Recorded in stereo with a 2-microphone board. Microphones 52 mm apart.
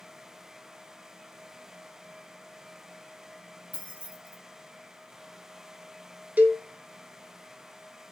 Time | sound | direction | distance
3.7 | keys jangling | 25° right (ahead or behind) | 0.9 m
6.4 | a cowbell | 30° right (ahead or behind) | 0.5 m